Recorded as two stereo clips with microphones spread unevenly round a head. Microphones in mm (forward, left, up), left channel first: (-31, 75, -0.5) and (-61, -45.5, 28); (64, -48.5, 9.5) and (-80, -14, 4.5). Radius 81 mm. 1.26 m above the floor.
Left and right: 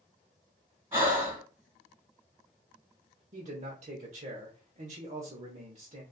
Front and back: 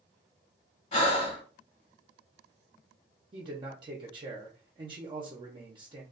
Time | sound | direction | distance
0.9 | breathing | 45° right | 1.8 m
3.3 | a man speaking | 140° right | 0.8 m